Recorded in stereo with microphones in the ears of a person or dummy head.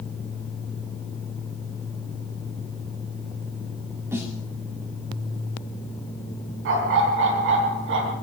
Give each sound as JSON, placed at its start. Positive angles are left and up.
{"t": 4.1, "sound": "a snare drum", "side_deg": -10, "distance_m": 1.7}
{"t": 6.7, "sound": "a dog barking", "side_deg": -60, "distance_m": 4.0}